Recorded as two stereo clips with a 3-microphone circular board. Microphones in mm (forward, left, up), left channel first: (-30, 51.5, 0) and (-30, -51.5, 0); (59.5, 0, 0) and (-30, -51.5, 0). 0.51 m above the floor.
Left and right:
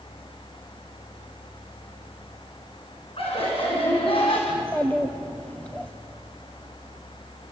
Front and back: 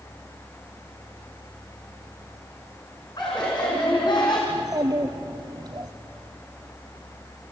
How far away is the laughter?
About 5.5 m.